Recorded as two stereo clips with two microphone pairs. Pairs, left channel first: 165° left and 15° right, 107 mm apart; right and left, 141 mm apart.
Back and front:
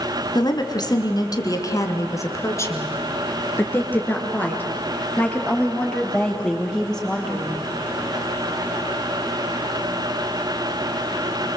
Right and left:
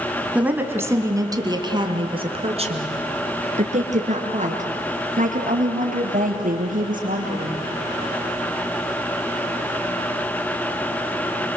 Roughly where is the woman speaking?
Behind.